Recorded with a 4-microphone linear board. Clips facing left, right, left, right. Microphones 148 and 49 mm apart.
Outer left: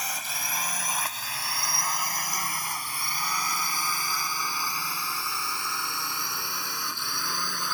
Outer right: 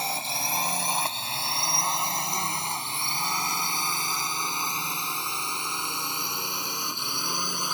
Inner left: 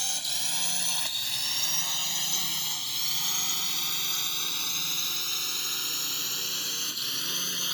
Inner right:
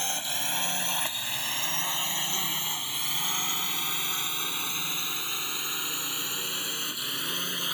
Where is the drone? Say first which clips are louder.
Outer right 5 dB, inner right 3 dB; 30° right (ahead or behind); by 7.7 s 20° right (ahead or behind).